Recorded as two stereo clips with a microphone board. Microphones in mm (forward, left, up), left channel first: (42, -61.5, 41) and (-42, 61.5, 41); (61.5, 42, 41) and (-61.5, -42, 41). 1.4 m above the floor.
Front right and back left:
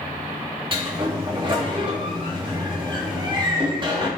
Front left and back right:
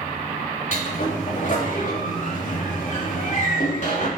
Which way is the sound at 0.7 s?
70° left.